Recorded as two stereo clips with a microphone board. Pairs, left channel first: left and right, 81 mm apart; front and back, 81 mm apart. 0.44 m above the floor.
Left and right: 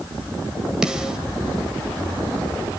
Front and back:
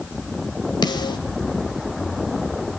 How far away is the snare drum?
About 1.8 m.